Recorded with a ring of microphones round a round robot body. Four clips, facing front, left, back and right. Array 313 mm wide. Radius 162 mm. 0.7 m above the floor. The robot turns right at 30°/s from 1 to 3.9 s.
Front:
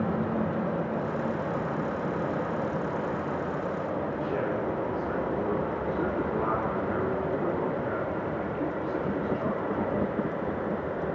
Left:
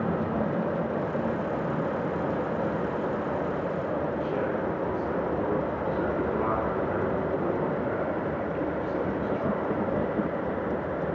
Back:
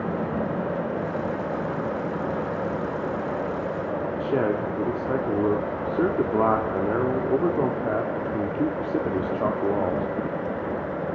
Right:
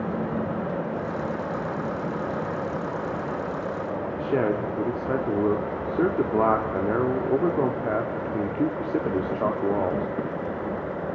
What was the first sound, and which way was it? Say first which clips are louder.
A man speaking: right 4 dB, back 7 dB; 130° right.